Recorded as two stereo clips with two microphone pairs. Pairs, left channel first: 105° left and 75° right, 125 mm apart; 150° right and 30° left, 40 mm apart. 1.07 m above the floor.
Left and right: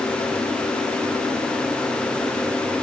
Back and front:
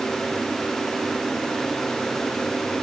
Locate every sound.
Only background noise.